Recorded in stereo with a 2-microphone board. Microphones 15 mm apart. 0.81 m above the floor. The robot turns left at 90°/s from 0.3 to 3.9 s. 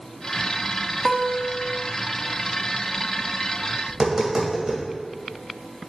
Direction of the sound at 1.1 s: 25° right.